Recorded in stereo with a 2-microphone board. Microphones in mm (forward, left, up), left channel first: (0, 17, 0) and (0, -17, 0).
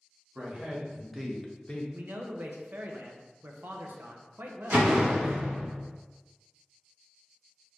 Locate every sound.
0.3 s a man speaking: 35° right (ahead or behind), 1.6 m; by 1.8 s 35° left (ahead or behind), 0.9 m
1.9 s a man speaking: 75° right (ahead or behind), 0.7 m
4.7 s a door slam: 70° right (ahead or behind), 1.2 m